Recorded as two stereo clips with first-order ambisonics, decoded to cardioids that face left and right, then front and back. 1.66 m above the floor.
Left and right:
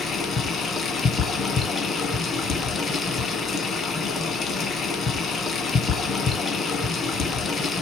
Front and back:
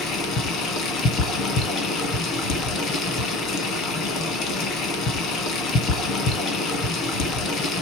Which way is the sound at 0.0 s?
35° left.